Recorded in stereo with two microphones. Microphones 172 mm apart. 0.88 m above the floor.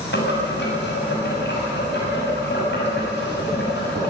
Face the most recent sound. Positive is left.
turn(degrees=85)